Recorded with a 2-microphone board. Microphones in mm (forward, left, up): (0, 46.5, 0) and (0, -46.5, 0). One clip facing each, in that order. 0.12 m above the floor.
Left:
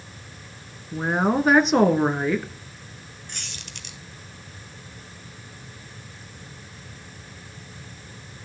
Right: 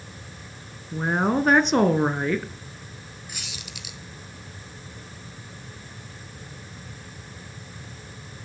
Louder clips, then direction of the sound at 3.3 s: Right 1 dB; 5° right (ahead or behind).